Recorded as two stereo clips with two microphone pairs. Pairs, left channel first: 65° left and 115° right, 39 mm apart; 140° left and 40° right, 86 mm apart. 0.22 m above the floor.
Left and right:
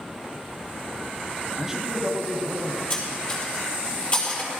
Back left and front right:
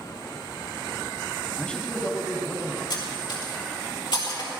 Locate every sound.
1.6 s a man speaking: 155° right, 1.3 m; by 2.8 s straight behind, 1.8 m
2.9 s cutlery clinking: 115° left, 4.5 m